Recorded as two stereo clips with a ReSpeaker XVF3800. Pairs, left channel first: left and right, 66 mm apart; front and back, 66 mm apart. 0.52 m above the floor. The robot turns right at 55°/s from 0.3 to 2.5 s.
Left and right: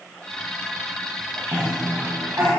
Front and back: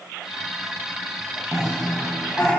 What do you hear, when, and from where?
1.5 s a cough: 100° right, 4 m; by 2.5 s 45° right, 4 m